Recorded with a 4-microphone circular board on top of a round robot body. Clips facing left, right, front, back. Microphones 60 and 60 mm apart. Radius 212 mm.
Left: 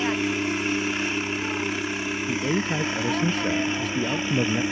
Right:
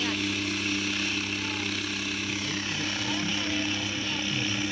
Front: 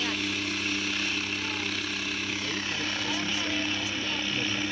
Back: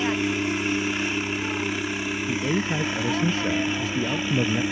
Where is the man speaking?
125° left.